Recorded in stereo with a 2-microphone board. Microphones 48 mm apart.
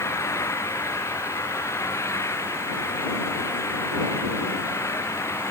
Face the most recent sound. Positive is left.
turn(degrees=85)